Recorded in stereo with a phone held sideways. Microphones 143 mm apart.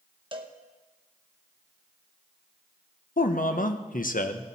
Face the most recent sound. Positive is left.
turn(degrees=70)  # may be behind; listen again after turning